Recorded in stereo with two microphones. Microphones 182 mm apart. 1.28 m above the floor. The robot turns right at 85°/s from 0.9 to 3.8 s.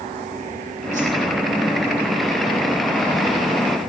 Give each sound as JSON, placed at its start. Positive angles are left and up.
{"t": 0.9, "sound": "a whoosh", "side_deg": -40, "distance_m": 10.0}